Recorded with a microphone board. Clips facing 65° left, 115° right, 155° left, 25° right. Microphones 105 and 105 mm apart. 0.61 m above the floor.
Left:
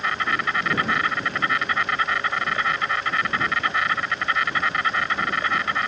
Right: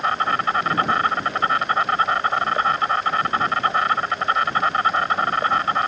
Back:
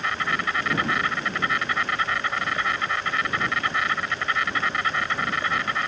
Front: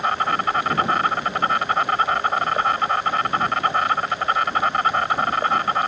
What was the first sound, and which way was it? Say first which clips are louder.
An insect: right 4 dB, front 6 dB; 65° right.